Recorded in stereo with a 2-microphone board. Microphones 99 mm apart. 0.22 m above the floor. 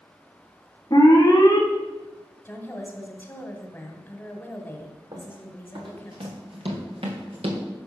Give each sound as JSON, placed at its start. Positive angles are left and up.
{"t": 0.9, "sound": "an alarm", "side_deg": 40, "distance_m": 3.0}
{"t": 2.5, "sound": "a woman speaking", "side_deg": 20, "distance_m": 1.7}
{"t": 5.1, "sound": "running footsteps", "side_deg": -55, "distance_m": 4.0}